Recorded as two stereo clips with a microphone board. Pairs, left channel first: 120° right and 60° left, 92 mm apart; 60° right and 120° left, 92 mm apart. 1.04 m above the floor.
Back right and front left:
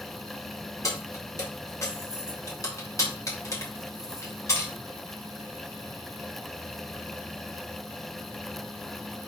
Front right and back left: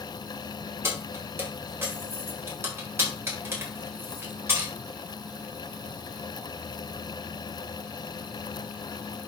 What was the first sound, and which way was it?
Keys jangling, 175° right.